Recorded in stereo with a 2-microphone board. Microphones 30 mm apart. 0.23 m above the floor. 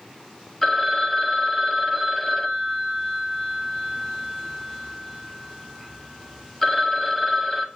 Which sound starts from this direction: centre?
A phone ringing, at 0.6 s.